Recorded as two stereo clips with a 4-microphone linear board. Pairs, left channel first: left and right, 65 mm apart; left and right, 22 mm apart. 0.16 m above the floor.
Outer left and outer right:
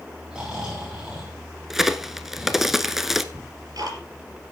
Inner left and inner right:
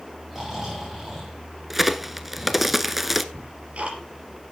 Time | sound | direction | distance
0.3 | snoring | 10° right (ahead or behind) | 7 m
1.7 | a crack | 5° right (ahead or behind) | 0.7 m
3.3 | ticking | 70° right (ahead or behind) | 4 m